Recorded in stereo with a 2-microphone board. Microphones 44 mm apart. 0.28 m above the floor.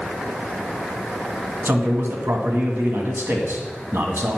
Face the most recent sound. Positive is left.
turn(degrees=-60)  # may be behind; listen again after turning